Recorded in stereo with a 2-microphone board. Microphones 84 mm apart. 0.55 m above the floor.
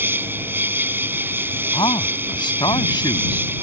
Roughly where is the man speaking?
Left.